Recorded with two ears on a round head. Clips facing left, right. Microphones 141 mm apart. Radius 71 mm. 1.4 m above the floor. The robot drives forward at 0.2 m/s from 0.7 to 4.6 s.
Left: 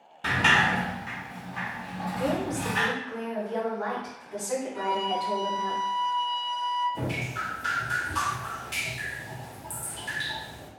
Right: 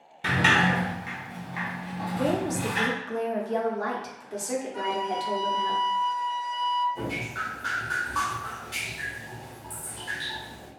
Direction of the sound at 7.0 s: 20° left (ahead or behind).